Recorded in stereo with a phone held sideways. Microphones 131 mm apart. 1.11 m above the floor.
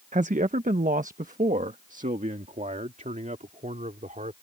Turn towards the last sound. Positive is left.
turn(degrees=-75)  # may be behind; listen again after turning